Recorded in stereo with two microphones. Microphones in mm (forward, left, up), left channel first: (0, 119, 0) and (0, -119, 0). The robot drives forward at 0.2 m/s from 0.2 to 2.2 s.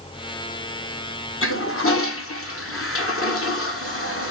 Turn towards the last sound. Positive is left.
turn(degrees=60)  # may be behind; listen again after turning